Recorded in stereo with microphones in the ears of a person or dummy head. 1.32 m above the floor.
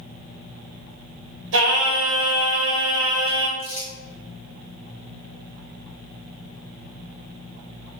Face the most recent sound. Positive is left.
turn(degrees=-15)  # may be behind; listen again after turning